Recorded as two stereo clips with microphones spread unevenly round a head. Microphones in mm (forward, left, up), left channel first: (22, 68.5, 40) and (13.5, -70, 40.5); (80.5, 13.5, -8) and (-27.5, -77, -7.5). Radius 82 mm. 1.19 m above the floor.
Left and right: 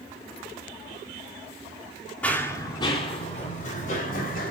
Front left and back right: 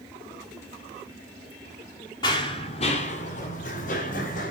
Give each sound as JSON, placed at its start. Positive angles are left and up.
{"t": 2.2, "sound": "running footsteps", "azimuth_deg": 15, "distance_m": 1.3}